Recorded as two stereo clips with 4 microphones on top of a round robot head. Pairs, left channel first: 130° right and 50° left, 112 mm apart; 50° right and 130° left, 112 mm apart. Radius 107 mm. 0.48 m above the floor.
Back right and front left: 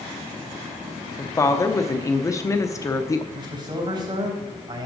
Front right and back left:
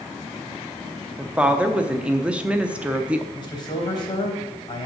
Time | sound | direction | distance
1.2 | a woman speaking | 160° right | 0.8 m
3.3 | a man speaking | straight ahead | 3.5 m